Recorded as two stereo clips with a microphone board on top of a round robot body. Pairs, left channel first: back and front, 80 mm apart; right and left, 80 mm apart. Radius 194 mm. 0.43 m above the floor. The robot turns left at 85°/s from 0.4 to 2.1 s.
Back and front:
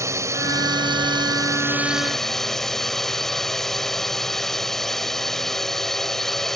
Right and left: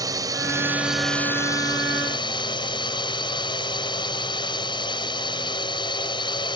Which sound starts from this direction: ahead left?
A drone, at 0.0 s.